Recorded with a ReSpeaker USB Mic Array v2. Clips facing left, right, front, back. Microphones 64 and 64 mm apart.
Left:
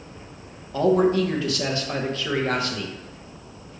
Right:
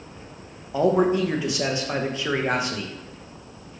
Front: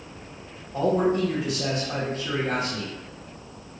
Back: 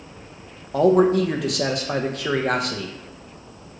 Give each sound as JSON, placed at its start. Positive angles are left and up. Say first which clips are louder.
{"t": 0.7, "sound": "a man speaking", "louder": "left 1 dB, back 6 dB", "azimuth_deg": -160, "distance_m": 0.7}